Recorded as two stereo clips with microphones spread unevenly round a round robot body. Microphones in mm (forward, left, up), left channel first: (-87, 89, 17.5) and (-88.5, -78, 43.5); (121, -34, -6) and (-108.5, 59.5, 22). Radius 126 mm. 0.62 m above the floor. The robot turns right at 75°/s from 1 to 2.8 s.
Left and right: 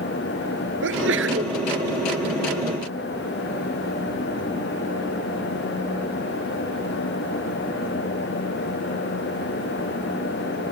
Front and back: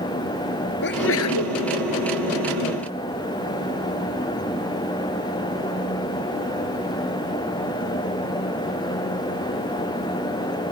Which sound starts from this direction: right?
A sneeze, at 0.8 s.